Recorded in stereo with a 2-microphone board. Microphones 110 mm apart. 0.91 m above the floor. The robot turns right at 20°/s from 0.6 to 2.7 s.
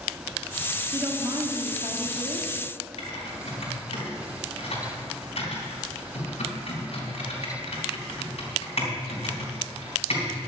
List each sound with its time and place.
0.9 s a woman speaking: 140° right, 1.8 m; by 2.5 s 105° right, 1.8 m
3.0 s typing on a keyboard: 60° left (ahead or behind), 4.5 m